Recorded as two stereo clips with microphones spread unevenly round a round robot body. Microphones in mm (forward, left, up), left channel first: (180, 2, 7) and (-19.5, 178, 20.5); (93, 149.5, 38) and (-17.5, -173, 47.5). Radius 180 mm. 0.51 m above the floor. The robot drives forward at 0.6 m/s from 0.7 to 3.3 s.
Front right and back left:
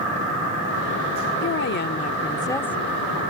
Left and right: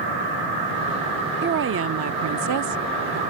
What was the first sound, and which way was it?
A woman speaking, 55° right.